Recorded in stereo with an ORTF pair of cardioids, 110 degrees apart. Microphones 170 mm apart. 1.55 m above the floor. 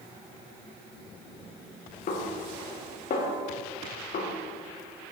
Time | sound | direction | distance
2.1 | a snare drum | 55° left | 1.4 m